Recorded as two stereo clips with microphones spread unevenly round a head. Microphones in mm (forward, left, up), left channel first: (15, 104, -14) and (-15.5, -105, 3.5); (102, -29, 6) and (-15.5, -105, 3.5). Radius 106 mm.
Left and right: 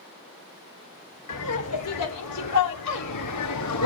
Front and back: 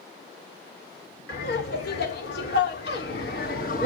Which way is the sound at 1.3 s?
65° left.